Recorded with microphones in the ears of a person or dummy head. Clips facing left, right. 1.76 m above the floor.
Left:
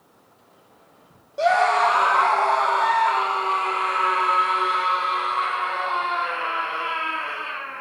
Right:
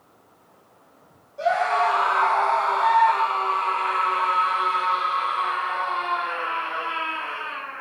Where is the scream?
80° left, 2 m; by 7.8 s 65° left (ahead or behind), 12 m.